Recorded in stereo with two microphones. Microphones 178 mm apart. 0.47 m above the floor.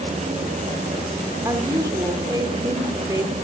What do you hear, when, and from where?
1.4 s a woman speaking: 20° right (ahead or behind), 1.0 m